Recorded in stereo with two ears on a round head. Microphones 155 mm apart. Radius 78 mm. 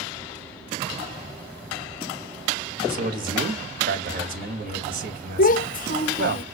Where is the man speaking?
55° right (ahead or behind), 1.6 m.